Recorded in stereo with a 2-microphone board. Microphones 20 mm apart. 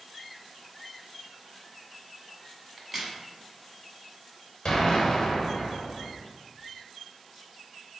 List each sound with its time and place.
2.8 s a crack: 15° right (ahead or behind), 0.8 m
4.7 s an explosion: 35° left (ahead or behind), 0.9 m